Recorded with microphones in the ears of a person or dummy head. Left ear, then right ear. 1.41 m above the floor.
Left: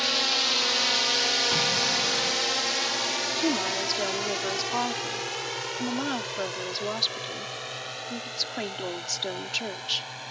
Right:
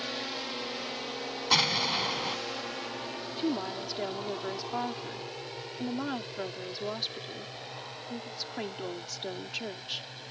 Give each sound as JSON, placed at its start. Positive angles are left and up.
{"t": 0.0, "sound": "a drone", "side_deg": 35}
{"t": 1.5, "sound": "an explosion", "side_deg": -50}
{"t": 3.4, "sound": "a woman speaking", "side_deg": 15}